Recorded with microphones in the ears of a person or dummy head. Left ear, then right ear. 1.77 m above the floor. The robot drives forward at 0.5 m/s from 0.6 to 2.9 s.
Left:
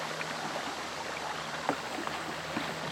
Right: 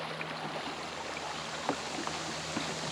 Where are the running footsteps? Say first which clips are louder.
Left 1 dB; 20° left (ahead or behind); by 2.8 s 15° left (ahead or behind).